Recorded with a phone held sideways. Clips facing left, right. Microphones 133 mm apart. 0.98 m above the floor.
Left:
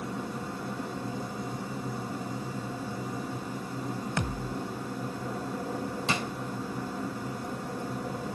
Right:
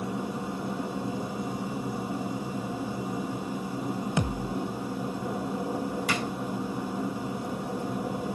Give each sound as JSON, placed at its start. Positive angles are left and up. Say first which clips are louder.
{"t": 0.0, "sound": "a machine running", "louder": "right 3 dB", "side_deg": -15, "distance_m": 1.8}
{"t": 4.2, "sound": "a thud", "louder": "right 4 dB", "side_deg": -20, "distance_m": 1.2}
{"t": 6.1, "sound": "a drawer", "louder": "left 1 dB", "side_deg": 25, "distance_m": 3.5}